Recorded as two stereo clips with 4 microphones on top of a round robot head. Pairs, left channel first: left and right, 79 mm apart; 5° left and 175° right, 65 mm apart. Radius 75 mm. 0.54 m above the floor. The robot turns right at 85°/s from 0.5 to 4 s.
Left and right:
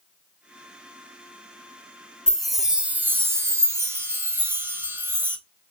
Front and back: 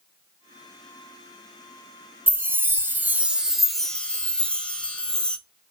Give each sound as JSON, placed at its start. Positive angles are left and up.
{"t": 2.3, "sound": "a chime", "azimuth_deg": 155, "distance_m": 0.7}